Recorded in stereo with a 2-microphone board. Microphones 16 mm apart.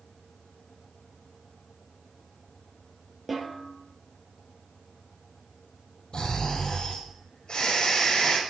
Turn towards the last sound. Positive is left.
turn(degrees=65)  # may be behind; listen again after turning